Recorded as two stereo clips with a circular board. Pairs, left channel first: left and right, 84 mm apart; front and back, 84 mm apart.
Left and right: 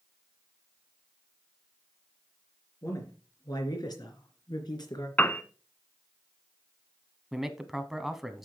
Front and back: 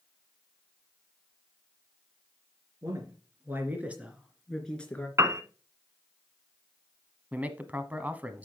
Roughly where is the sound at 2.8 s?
Behind left.